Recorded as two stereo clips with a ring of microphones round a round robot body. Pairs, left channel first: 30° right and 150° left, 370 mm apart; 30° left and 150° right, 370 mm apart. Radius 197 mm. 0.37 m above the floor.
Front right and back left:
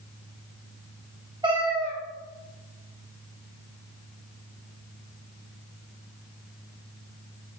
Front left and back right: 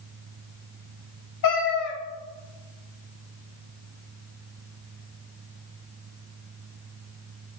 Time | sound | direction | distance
1.4 | a cat meowing | 70° left | 0.7 m